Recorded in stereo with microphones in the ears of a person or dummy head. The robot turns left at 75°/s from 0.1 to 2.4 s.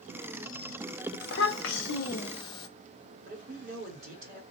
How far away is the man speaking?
About 3 m.